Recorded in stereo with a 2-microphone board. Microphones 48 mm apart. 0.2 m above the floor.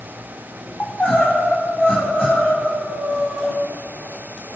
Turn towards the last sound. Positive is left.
turn(degrees=30)  # may be behind; listen again after turning